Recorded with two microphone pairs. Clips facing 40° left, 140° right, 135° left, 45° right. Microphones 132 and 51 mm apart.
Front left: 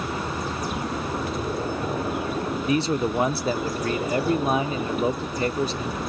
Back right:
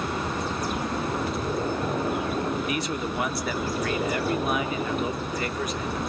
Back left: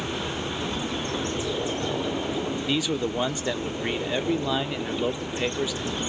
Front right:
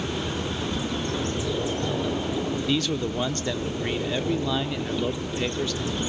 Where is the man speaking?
60° left, 1.0 m.